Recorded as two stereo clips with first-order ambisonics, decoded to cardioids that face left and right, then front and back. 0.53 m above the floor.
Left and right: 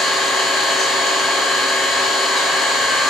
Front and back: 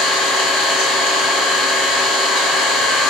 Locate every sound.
0.0 s an engine running: 20° left, 1.4 m